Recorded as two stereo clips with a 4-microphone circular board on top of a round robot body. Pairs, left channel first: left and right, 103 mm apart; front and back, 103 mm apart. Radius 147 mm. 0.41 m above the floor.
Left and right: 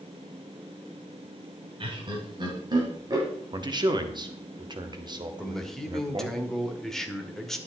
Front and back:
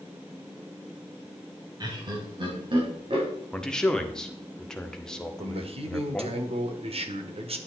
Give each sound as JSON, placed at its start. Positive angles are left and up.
{"t": 1.8, "sound": "laughter", "azimuth_deg": -130, "distance_m": 3.0}
{"t": 3.5, "sound": "a man speaking", "azimuth_deg": -80, "distance_m": 1.8}
{"t": 5.4, "sound": "a man speaking", "azimuth_deg": 175, "distance_m": 1.9}